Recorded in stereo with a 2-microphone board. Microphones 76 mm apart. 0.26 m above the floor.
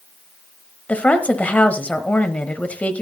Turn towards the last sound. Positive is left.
turn(degrees=20)  # may be behind; listen again after turning